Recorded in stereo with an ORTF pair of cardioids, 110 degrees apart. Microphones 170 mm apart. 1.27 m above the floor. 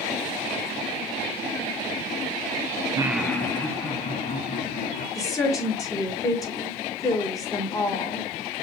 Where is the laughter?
25° right, 0.5 m; by 5.0 s 40° left, 2.5 m.